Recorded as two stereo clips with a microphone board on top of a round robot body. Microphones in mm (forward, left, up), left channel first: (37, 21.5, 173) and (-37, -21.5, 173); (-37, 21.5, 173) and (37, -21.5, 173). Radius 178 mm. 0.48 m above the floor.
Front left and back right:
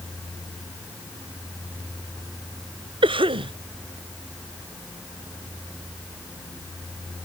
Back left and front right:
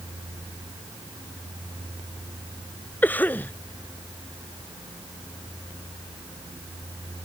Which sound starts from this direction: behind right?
A cough, at 3.0 s.